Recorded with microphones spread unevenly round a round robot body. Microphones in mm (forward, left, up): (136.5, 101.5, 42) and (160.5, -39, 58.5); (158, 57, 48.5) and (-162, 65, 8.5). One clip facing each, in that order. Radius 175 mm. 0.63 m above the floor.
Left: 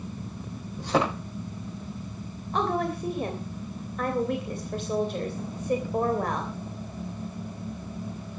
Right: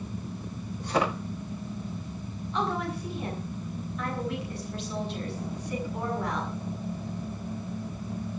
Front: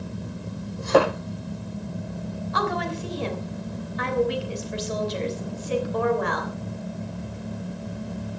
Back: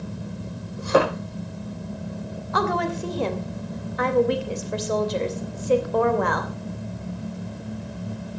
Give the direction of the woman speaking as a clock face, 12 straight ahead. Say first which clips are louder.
Left 4 dB, back 4 dB; 7 o'clock.